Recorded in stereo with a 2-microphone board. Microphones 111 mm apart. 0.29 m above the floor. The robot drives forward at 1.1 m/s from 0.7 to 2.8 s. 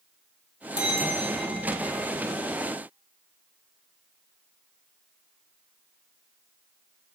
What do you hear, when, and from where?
0.8 s a bell: 85° right, 1.7 m; by 2.1 s 45° right (ahead or behind), 2.5 m